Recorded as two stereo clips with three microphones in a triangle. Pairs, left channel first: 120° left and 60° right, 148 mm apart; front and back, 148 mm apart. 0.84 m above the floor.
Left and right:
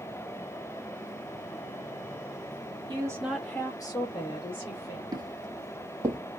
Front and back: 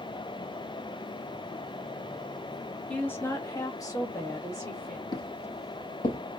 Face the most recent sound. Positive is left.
turn(degrees=10)